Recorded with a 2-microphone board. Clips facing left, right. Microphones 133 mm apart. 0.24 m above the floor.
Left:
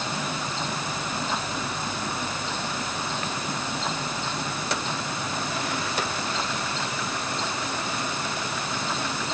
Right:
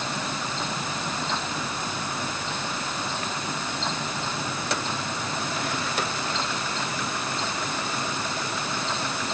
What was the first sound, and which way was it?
Only background noise.